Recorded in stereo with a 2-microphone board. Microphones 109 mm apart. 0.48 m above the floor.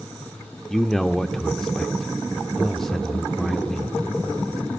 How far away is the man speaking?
About 0.8 m.